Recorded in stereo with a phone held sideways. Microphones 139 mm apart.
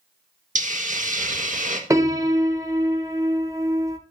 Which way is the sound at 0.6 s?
70° right (ahead or behind).